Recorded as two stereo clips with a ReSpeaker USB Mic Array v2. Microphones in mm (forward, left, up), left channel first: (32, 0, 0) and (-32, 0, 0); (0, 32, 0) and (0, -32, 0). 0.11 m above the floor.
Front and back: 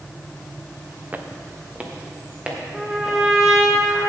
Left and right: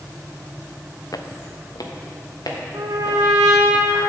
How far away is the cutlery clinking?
No cutlery clinking in this recording.